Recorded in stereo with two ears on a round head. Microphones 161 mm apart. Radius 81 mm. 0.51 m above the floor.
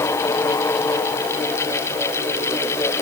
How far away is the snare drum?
No snare drum in this recording.